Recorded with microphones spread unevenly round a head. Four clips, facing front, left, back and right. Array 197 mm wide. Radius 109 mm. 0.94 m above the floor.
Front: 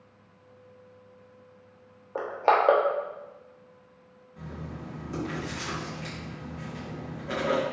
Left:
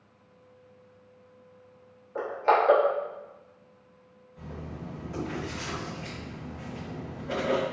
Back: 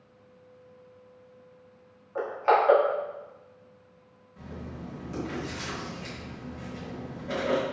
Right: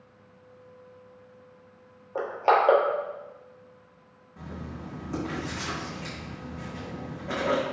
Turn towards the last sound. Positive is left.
turn(degrees=-65)